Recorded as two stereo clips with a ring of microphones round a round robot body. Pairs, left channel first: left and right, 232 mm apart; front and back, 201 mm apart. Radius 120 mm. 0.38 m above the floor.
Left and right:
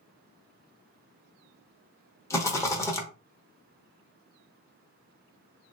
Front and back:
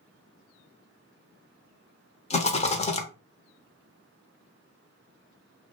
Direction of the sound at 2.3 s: 20° left.